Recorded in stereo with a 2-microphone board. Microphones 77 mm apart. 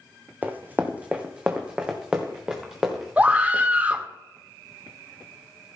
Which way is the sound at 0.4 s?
25° right (ahead or behind).